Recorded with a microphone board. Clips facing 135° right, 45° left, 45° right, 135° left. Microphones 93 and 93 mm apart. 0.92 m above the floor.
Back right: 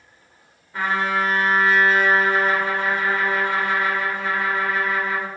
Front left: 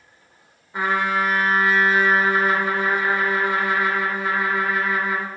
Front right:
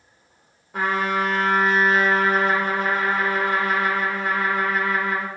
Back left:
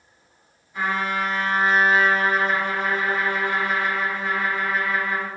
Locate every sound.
0.7 s a trumpet: 30° right, 2.0 m